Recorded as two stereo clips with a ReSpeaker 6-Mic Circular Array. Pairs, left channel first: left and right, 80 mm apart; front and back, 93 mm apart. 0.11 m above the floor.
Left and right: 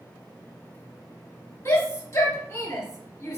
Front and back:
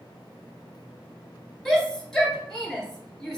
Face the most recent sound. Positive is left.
turn(degrees=80)